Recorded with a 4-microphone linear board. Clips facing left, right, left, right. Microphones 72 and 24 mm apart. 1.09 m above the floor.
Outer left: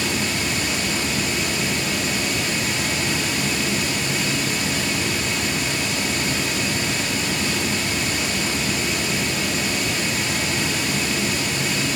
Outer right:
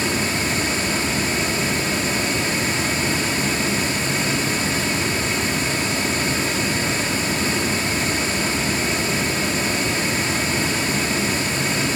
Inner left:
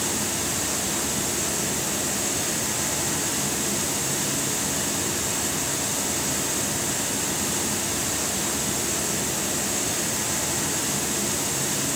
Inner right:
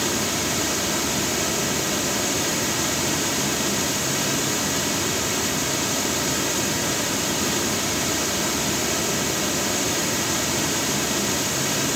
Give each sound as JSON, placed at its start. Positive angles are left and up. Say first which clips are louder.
{"t": 0.0, "sound": "running water", "louder": "outer right 2 dB, inner right 4 dB", "side_deg": -35, "distance_m": 1.8}